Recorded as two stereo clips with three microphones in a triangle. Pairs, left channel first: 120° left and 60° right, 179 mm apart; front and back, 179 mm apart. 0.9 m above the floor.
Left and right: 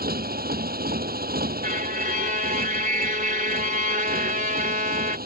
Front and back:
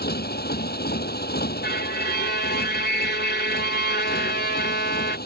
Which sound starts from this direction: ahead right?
A motorcycle, at 0.0 s.